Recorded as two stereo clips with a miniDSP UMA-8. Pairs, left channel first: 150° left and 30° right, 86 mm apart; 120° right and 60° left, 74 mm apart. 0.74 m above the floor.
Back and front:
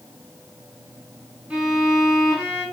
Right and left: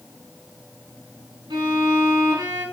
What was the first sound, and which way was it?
A violin, 55° left.